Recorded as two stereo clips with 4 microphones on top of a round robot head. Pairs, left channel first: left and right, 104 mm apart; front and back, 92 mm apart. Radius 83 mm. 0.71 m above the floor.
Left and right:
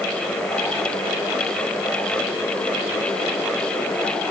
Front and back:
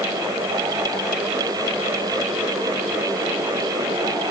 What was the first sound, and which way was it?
Only background noise.